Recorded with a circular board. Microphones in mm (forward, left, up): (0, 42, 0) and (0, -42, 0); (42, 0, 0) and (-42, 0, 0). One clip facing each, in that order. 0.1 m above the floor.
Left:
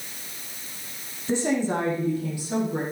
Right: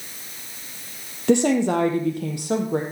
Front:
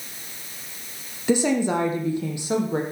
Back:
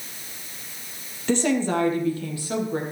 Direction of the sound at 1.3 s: 80° right.